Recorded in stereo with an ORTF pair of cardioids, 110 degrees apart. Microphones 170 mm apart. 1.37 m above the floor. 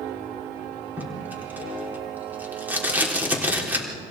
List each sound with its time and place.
1.0 s tape being pulled: 10° right, 4 m